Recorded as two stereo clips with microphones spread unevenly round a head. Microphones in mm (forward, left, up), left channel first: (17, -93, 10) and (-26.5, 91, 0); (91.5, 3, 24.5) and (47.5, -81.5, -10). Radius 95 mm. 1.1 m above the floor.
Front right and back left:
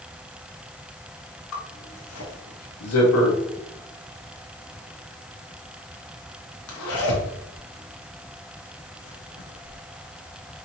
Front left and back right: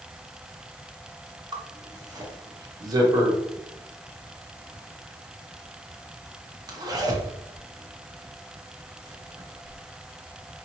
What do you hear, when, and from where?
1.5 s a zipper: 70° right, 0.9 m